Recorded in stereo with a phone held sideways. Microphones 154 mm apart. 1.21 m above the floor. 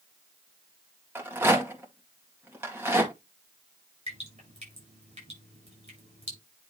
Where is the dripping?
50° right (ahead or behind), 6 m.